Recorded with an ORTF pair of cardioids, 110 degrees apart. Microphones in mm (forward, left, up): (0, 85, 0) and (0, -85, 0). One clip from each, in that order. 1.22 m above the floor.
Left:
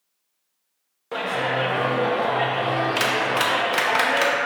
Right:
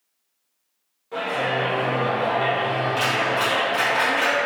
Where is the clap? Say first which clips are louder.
Even; 55° left, 0.5 m.